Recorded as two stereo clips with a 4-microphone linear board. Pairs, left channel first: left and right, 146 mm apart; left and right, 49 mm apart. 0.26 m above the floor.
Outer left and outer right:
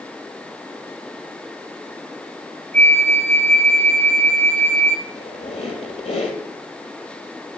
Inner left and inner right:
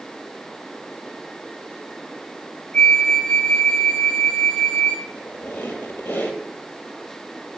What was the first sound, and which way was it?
A flute, 15° left (ahead or behind).